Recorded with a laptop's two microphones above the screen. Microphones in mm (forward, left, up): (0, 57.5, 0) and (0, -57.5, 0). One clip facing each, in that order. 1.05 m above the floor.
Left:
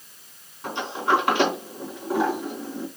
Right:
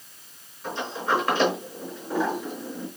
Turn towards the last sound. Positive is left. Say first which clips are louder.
# left 3 dB
turn(degrees=75)  # may be behind; listen again after turning